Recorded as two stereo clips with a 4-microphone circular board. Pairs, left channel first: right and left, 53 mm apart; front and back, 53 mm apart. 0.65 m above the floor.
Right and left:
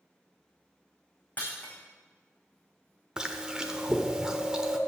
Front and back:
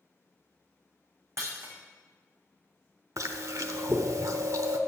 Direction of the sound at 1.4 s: 150° right.